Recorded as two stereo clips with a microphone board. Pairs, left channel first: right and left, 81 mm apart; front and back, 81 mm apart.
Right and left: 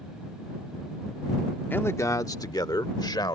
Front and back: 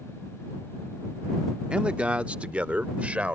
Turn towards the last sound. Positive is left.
turn(degrees=-110)